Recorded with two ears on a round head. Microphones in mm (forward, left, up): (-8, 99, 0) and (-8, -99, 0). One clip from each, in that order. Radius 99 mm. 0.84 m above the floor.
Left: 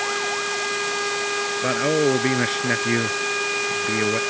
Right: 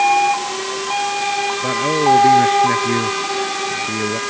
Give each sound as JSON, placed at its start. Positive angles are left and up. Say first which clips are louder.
{"t": 1.6, "sound": "a man speaking", "louder": "right 3 dB", "side_deg": 30}